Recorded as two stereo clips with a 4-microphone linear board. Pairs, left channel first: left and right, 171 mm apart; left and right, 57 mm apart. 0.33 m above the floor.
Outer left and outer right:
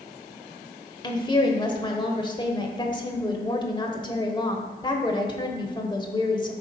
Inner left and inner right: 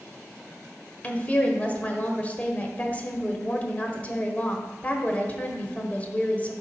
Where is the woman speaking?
25° left (ahead or behind), 1.0 m.